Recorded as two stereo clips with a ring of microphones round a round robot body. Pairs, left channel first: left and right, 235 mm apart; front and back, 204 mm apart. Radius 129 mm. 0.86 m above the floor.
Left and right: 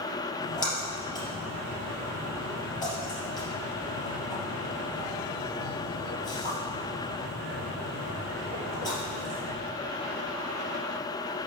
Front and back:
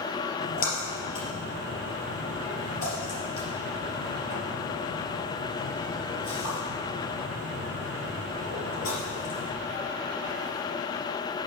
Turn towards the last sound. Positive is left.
turn(degrees=15)